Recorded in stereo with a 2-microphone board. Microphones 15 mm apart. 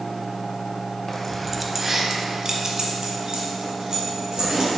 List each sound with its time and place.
1.1 s keys jangling: 20° left (ahead or behind), 0.8 m; by 4.7 s 45° right (ahead or behind), 3 m